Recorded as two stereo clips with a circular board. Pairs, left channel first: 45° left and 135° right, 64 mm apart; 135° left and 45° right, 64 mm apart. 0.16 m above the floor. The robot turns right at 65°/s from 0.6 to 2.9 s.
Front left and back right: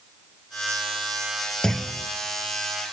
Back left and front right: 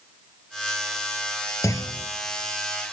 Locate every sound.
1.6 s a clunk: 125° left, 1.0 m; by 2.1 s 150° left, 1.0 m